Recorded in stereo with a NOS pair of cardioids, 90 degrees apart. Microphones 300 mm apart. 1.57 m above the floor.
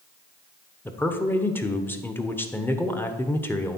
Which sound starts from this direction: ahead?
A man speaking, at 0.8 s.